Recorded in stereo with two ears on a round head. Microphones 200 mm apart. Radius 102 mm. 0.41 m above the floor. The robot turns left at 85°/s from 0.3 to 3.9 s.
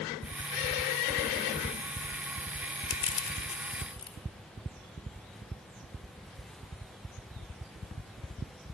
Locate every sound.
2.9 s crushing: 25° left (ahead or behind), 0.9 m